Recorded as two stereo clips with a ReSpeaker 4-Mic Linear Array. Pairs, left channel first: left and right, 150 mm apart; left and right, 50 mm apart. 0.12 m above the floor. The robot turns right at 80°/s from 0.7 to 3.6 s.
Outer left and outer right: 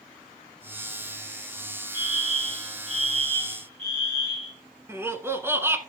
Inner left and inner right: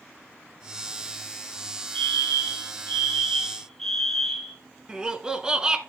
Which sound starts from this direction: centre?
Laughter, at 4.9 s.